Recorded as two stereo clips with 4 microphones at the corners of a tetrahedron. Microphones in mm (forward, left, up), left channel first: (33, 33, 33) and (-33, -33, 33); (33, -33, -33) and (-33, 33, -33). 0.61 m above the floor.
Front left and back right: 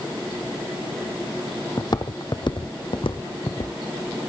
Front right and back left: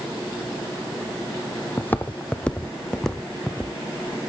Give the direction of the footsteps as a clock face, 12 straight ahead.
11 o'clock.